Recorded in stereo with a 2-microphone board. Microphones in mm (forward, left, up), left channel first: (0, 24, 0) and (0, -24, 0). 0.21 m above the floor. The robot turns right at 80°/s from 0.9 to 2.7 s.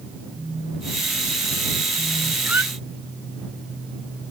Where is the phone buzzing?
5° left; by 2.4 s 120° left.